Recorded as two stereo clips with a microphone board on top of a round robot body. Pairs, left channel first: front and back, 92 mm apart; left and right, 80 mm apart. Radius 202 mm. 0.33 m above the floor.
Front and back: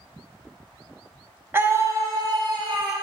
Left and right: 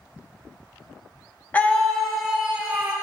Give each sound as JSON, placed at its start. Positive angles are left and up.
{"t": 1.5, "sound": "a scream", "azimuth_deg": 140, "distance_m": 1.3}